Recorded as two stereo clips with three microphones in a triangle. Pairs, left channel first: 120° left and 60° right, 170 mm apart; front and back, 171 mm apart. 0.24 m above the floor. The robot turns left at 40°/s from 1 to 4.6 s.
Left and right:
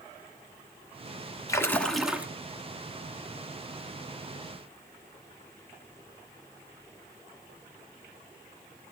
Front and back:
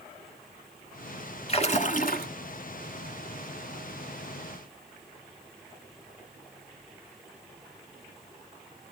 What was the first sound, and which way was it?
A splash, 50° left.